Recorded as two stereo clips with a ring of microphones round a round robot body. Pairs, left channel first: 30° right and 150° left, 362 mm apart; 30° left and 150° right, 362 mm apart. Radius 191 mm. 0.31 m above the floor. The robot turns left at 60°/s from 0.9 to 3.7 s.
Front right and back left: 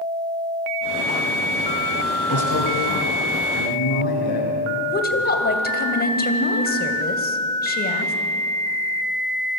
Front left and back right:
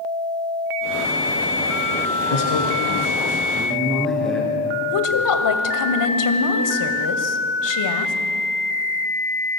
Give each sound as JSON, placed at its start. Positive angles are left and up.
{"t": 2.3, "sound": "a man speaking", "azimuth_deg": 25, "distance_m": 6.5}
{"t": 4.8, "sound": "a woman speaking", "azimuth_deg": 30, "distance_m": 2.5}